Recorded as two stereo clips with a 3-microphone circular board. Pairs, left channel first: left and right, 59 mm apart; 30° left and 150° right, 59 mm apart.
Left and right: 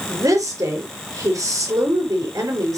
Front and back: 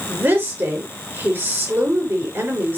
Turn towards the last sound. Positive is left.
turn(degrees=-95)